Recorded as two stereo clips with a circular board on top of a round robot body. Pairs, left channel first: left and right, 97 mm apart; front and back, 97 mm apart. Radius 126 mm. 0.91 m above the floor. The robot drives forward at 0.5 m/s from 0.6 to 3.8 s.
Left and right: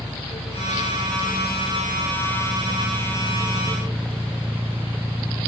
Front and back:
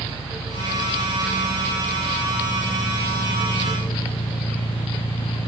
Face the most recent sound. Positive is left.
turn(degrees=-25)